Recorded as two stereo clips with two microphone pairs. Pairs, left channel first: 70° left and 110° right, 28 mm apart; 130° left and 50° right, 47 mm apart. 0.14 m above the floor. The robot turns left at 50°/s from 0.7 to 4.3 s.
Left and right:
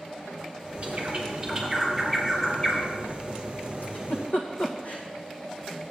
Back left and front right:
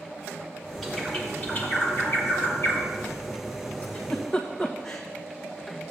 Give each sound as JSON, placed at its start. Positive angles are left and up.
{"t": 0.8, "sound": "a bird", "azimuth_deg": -150, "distance_m": 3.5}
{"t": 3.8, "sound": "a giggle", "azimuth_deg": 70, "distance_m": 1.9}